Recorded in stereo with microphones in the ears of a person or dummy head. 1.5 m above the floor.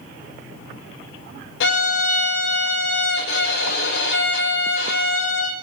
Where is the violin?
70° left (ahead or behind), 1.4 m.